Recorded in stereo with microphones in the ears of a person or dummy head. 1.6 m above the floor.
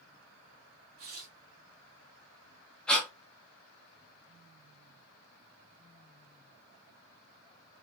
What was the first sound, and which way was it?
Tearing paper, 45° right (ahead or behind).